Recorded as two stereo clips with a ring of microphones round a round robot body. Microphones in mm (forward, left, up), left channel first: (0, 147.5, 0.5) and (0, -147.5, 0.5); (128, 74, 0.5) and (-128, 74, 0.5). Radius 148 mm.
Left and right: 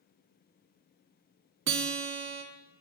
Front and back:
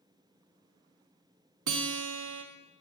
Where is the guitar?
145° right, 0.6 m.